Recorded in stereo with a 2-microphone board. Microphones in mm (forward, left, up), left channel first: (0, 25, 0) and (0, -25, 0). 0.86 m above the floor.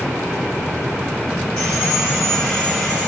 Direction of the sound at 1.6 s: 10° left (ahead or behind).